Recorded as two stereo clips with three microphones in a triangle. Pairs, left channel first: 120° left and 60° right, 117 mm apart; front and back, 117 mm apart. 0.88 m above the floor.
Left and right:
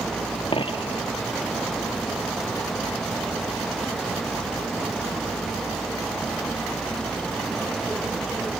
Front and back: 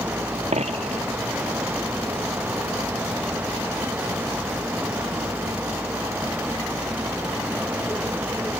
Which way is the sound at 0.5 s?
160° left.